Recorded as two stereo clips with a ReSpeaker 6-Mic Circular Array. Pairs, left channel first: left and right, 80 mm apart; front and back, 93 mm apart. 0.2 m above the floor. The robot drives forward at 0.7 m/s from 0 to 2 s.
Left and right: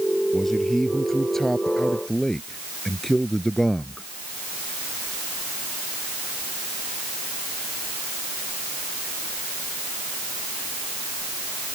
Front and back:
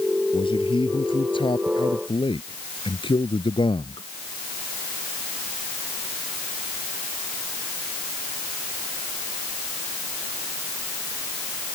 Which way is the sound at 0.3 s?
5° left.